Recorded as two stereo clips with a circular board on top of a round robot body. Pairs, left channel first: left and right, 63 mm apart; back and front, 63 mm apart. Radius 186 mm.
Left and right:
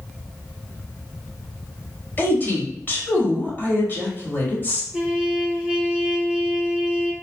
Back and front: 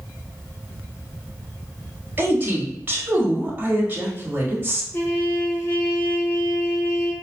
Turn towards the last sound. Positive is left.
turn(degrees=-155)